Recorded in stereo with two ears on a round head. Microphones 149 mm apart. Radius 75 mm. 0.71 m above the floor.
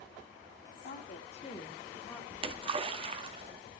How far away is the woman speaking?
About 1.8 m.